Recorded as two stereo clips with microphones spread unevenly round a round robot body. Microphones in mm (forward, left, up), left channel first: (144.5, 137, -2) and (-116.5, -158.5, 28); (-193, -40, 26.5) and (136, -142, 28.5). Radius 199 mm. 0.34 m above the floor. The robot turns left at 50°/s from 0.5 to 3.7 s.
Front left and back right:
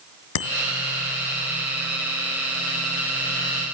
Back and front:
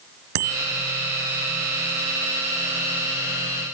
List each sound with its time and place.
0.3 s a bicycle bell: 10° left, 3.5 m; by 0.6 s straight ahead, 3.5 m